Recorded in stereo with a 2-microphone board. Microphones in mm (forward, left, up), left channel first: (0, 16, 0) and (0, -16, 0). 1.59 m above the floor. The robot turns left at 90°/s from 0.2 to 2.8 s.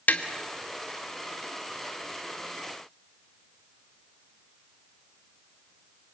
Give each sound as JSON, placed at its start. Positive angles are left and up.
{"t": 0.1, "sound": "tapping", "side_deg": 55, "distance_m": 1.6}